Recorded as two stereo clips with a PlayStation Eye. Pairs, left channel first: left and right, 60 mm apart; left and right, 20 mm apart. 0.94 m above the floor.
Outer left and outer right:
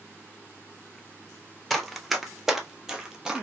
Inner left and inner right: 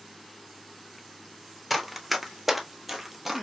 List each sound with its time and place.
1.7 s running footsteps: centre (ahead or behind), 1.0 m; by 3.4 s 10° right (ahead or behind), 1.1 m